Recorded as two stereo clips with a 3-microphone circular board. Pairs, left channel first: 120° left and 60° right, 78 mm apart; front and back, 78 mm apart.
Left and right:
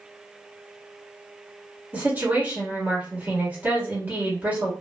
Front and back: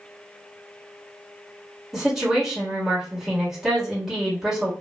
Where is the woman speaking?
95° right, 1.3 m.